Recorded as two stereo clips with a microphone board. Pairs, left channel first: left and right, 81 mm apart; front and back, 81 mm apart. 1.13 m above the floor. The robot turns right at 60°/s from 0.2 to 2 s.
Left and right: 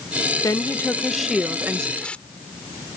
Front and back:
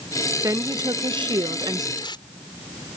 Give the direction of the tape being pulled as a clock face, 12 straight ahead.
12 o'clock.